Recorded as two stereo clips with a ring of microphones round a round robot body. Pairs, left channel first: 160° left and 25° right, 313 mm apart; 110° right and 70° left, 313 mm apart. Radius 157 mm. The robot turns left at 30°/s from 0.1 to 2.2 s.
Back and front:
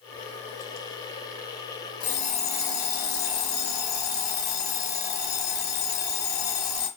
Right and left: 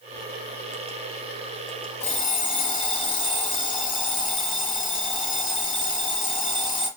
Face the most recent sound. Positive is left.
turn(degrees=175)